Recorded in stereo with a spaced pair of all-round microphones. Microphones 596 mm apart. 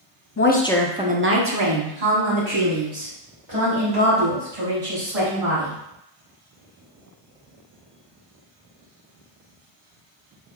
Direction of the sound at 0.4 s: 25° left (ahead or behind).